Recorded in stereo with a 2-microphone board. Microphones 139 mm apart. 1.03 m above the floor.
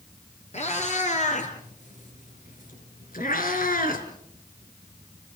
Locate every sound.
0.5 s a cat meowing: 50° left (ahead or behind), 5 m; by 4.0 s 75° left (ahead or behind), 3.5 m